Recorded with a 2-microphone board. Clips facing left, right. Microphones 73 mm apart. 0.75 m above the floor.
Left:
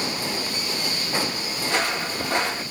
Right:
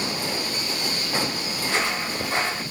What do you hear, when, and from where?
1.6 s footsteps: 55° left (ahead or behind), 1.6 m